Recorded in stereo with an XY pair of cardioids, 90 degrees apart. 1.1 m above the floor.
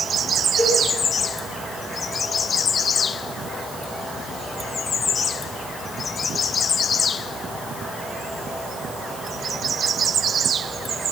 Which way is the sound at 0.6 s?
50° right.